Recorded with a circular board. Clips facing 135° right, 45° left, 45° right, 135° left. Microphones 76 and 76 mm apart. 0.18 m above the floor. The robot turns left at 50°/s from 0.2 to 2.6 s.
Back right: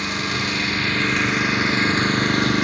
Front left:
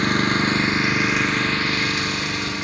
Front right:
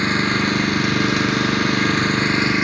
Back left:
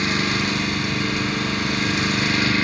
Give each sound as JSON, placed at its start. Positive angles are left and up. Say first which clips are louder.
{"t": 0.0, "sound": "an engine running", "louder": "front left 5 dB, front right 3 dB", "azimuth_deg": 5, "distance_m": 0.7}